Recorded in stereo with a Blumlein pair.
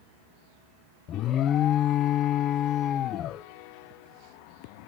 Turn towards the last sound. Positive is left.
turn(degrees=30)